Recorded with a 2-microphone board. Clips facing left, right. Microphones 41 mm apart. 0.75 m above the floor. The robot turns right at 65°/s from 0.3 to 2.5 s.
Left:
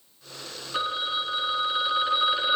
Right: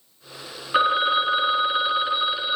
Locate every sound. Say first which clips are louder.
0.7 s a phone ringing: right 9 dB; 105° right, 0.6 m; by 2.6 s 10° left, 0.6 m